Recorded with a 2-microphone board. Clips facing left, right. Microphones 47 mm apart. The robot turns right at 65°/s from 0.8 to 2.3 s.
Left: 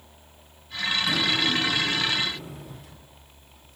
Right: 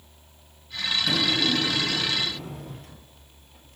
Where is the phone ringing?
I don't hear a phone ringing.